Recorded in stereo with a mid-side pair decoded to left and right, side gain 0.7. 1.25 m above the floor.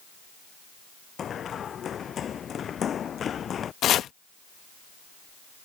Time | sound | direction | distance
1.2 | running footsteps | 35° left | ?
3.8 | chopping | 45° left | ?